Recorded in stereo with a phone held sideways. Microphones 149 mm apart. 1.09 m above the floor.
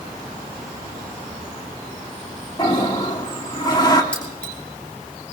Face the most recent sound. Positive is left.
turn(degrees=5)  # may be behind; listen again after turning